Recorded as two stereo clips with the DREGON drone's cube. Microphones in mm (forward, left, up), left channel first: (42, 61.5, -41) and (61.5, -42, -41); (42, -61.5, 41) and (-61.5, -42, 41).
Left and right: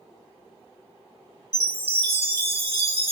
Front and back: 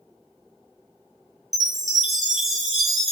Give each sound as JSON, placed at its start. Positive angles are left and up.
{"t": 1.5, "sound": "a chime", "azimuth_deg": -100, "distance_m": 1.2}